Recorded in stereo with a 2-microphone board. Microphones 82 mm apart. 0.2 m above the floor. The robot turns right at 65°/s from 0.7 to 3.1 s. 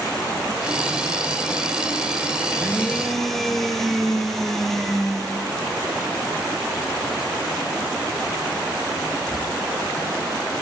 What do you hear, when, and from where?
2.5 s a blender: 135° left, 1.4 m; by 5.5 s 175° left, 1.4 m